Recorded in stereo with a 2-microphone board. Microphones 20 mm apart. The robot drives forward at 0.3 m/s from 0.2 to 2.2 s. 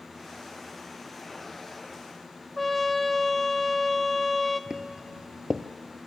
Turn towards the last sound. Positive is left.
turn(degrees=-30)  # may be behind; listen again after turning